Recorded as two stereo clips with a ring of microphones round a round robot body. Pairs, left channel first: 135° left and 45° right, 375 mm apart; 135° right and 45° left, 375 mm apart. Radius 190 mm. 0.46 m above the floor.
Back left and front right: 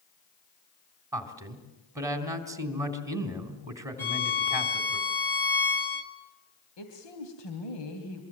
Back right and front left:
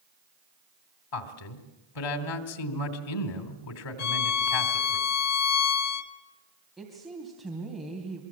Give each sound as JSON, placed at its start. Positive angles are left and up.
{"t": 1.1, "sound": "a man speaking", "azimuth_deg": -125, "distance_m": 3.0}
{"t": 4.0, "sound": "a violin", "azimuth_deg": -140, "distance_m": 1.2}
{"t": 6.8, "sound": "a woman speaking", "azimuth_deg": 135, "distance_m": 3.0}